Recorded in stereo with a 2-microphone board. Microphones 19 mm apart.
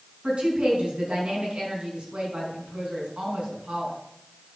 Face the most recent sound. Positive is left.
turn(degrees=-75)  # may be behind; listen again after turning